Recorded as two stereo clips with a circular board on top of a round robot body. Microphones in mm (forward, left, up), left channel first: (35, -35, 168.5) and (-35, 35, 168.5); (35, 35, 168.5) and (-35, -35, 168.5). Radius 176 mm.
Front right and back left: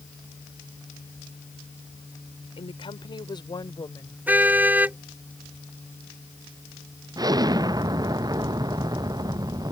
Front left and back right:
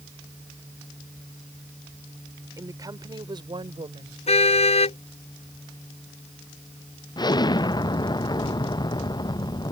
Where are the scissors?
I don't hear scissors.